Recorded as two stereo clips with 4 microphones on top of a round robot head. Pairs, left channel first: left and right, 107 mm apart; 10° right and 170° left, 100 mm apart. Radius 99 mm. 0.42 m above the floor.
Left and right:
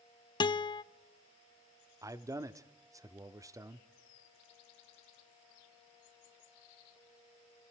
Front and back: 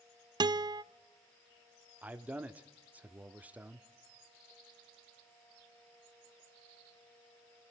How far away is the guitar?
About 0.6 m.